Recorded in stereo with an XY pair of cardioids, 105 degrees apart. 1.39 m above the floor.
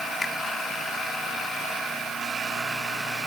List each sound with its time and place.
0.2 s a finger snap: 30° left